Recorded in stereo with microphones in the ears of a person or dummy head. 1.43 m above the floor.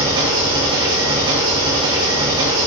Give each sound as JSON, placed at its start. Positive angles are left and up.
{"t": 0.0, "sound": "an engine running", "side_deg": -25, "distance_m": 1.2}